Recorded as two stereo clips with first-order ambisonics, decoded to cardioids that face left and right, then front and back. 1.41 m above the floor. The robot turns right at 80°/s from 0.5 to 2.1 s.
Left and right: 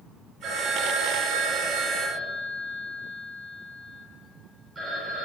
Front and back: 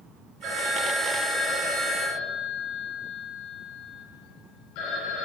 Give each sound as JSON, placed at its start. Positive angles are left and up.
{"t": 0.4, "sound": "a phone ringing", "azimuth_deg": -140, "distance_m": 4.0}